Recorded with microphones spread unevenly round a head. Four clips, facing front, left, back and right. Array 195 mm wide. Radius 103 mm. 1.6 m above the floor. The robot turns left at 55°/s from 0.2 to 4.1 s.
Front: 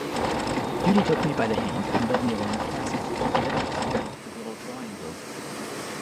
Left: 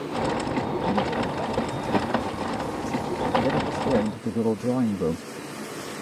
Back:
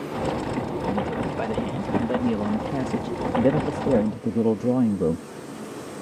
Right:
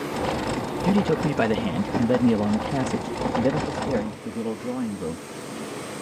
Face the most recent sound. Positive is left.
turn(degrees=160)